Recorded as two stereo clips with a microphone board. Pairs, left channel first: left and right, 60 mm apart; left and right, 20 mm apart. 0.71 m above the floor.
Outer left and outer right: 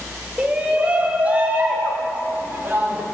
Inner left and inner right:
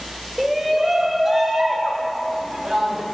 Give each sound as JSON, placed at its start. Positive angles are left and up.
{"t": 0.4, "sound": "a shout", "side_deg": -20, "distance_m": 2.5}